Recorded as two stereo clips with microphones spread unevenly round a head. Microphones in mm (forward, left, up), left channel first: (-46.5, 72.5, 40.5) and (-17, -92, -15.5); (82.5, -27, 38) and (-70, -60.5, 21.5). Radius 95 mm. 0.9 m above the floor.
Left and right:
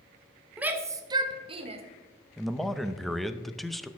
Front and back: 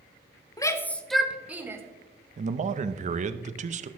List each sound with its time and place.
0.6 s a shout: 45° right, 0.8 m; by 1.8 s 100° right, 1.2 m
2.4 s a man speaking: 155° right, 0.6 m